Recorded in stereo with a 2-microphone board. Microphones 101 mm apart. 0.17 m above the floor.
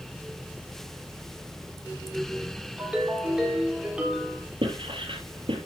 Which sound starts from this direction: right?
Writing, at 4.6 s.